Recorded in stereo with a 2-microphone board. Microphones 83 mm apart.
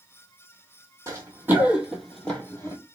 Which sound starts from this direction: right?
Running footsteps, at 1.1 s.